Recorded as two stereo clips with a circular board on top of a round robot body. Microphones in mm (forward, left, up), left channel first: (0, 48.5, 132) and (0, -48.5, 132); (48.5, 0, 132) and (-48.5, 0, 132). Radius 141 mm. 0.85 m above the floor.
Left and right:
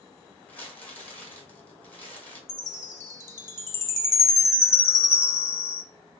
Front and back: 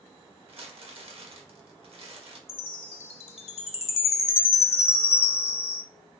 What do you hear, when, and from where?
0.5 s crumpling: 165° left, 1.6 m
2.5 s a chime: 25° left, 0.7 m